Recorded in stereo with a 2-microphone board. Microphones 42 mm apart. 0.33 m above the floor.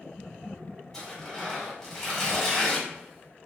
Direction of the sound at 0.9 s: 10° left (ahead or behind).